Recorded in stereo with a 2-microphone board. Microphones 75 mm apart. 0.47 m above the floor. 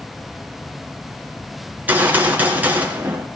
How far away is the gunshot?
About 3 m.